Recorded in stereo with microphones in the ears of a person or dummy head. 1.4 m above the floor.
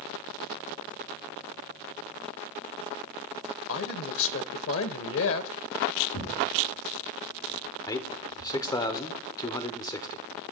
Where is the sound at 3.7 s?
70° left (ahead or behind), 1.1 m.